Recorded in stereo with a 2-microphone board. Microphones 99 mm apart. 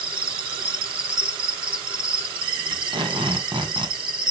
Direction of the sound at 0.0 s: 60° right (ahead or behind).